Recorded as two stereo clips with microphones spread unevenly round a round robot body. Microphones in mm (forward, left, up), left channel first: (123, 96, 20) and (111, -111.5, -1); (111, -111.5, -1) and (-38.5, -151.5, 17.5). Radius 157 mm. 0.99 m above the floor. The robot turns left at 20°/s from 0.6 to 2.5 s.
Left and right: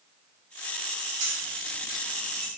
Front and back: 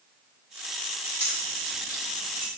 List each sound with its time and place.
1.2 s keys jangling: 110° right, 1.3 m; by 2.5 s 135° right, 1.3 m